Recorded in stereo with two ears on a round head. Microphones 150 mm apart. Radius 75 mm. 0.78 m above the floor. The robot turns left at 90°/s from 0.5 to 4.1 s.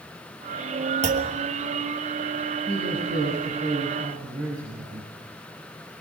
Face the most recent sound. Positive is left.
turn(degrees=-155)